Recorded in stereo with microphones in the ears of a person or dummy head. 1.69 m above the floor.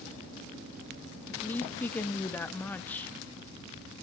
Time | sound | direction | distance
1.3 | a woman speaking | 15° left (ahead or behind) | 0.9 m